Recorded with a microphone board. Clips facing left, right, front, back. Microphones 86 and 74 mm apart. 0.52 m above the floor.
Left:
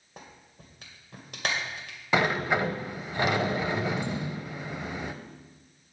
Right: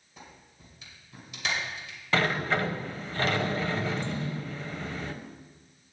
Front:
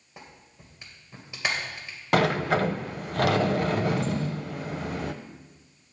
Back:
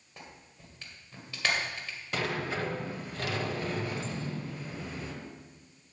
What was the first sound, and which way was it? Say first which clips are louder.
A clap: left 2 dB, front 2 dB; 70° left.